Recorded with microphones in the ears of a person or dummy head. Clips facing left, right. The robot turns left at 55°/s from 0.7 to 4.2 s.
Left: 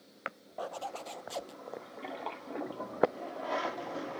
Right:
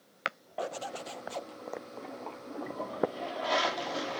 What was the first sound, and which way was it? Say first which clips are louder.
A zipper: right 3 dB; 150° right.